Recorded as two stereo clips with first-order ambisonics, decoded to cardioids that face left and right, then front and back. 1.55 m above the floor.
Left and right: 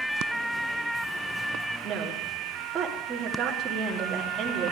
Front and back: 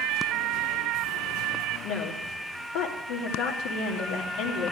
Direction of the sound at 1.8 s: 20° right.